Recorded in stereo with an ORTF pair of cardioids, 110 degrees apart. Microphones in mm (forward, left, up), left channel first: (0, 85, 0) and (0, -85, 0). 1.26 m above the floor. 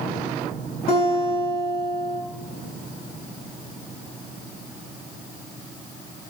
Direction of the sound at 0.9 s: 65° left.